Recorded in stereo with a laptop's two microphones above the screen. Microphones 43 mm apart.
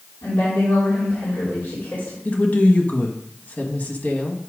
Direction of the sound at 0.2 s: 60° left (ahead or behind).